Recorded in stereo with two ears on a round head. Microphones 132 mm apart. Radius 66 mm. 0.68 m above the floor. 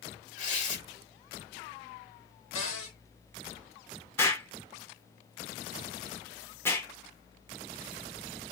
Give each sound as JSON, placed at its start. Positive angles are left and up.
{"t": 0.4, "sound": "tearing paper", "side_deg": 55, "distance_m": 1.7}
{"t": 2.5, "sound": "a cupboard door", "side_deg": 45, "distance_m": 1.6}
{"t": 4.2, "sound": "an explosion", "side_deg": 15, "distance_m": 0.9}